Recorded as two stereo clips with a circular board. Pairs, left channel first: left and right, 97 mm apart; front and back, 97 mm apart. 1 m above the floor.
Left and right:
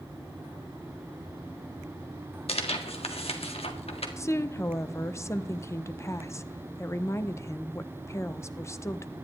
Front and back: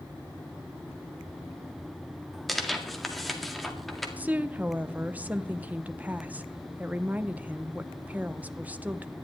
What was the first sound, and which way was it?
Tearing paper, 90° left.